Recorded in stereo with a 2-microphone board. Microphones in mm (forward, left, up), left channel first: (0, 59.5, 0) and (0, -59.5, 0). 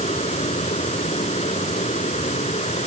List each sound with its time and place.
0.0 s running water: 70° left (ahead or behind)